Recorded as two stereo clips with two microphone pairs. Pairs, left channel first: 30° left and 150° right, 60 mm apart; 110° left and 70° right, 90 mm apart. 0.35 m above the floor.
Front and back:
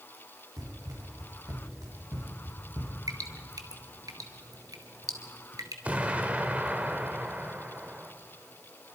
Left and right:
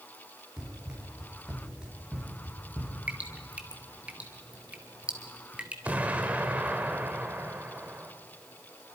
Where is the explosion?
125° right, 1.3 m.